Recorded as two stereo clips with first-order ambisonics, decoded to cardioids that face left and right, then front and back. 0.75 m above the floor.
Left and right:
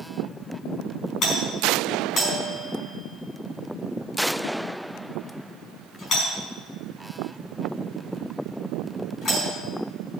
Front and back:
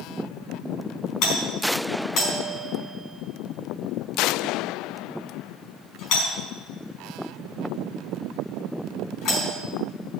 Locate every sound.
1.2 s a doorbell: 40° left, 5 m